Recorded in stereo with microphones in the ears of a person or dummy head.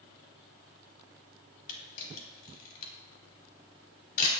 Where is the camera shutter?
50° left (ahead or behind), 4 m.